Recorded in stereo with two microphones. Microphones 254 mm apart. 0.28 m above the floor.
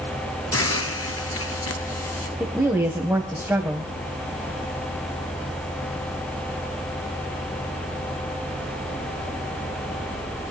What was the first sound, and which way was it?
A hiss, 65° left (ahead or behind).